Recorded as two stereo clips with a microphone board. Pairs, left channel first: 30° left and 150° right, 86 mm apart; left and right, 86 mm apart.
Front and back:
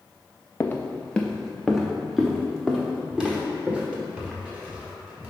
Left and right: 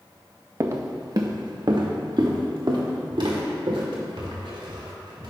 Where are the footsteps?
35° right, 0.8 m; by 5.3 s 75° right, 3 m.